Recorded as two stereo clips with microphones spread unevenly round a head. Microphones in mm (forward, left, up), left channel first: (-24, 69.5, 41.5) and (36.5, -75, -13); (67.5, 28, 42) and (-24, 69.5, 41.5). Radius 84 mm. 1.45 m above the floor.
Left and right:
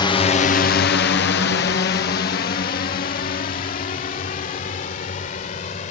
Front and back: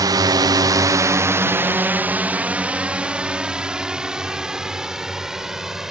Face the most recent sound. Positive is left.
turn(degrees=70)